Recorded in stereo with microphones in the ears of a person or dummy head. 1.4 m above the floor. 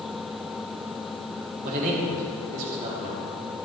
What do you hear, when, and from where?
1.6 s a man speaking: 50° right (ahead or behind), 2 m